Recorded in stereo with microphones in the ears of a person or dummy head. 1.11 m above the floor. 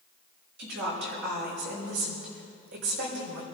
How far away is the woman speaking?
About 6 m.